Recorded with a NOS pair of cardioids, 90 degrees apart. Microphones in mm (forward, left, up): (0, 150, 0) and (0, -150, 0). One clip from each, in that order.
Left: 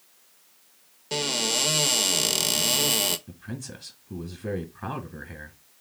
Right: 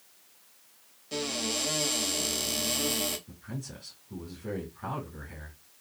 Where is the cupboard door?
55° left, 0.7 m.